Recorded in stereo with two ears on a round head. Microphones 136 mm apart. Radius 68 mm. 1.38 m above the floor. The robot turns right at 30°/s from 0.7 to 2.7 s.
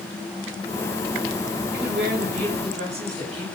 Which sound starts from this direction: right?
A woman speaking, at 1.7 s.